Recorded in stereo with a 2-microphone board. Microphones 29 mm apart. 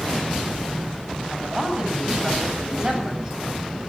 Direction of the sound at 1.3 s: 25° right (ahead or behind).